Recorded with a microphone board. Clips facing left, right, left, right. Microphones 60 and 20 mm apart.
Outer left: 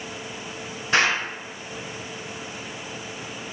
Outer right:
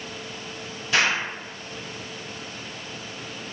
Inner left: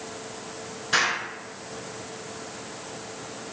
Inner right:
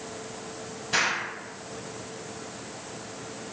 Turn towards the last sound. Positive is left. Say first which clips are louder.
# outer left 1 dB, inner left 2 dB
turn(degrees=45)  # may be behind; listen again after turning